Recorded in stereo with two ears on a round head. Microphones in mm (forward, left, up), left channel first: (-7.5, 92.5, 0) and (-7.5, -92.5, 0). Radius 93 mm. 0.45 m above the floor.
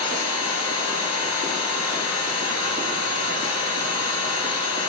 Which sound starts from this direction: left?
An engine running, at 0.0 s.